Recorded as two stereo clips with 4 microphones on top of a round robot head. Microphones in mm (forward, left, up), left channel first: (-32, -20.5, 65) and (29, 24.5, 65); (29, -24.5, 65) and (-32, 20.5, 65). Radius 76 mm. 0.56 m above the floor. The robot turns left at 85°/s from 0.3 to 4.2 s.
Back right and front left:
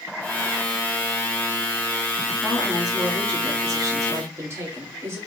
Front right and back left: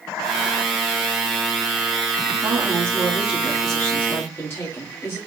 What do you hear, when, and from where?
2.4 s a woman speaking: 155° left, 1.5 m; by 5.2 s 5° left, 1.5 m